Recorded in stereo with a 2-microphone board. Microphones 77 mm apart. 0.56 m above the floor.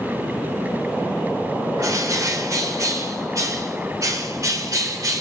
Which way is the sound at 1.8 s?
50° right (ahead or behind).